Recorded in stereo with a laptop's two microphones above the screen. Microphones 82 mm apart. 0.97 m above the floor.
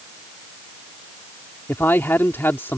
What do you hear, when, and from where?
1.7 s a man speaking: 30° left (ahead or behind)